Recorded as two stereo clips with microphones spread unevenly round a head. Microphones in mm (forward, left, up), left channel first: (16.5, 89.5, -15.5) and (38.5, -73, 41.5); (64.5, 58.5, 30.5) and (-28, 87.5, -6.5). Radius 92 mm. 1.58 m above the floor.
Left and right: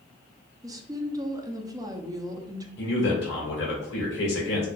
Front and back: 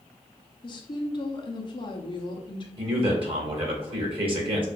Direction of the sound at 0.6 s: 25° right.